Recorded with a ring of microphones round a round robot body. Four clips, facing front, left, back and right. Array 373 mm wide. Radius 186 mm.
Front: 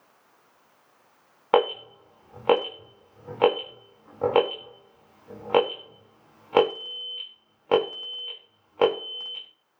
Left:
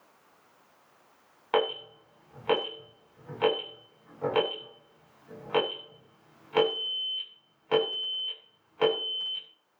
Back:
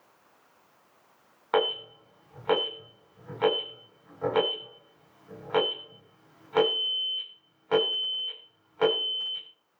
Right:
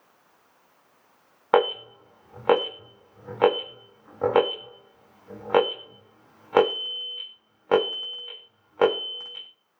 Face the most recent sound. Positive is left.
turn(degrees=-45)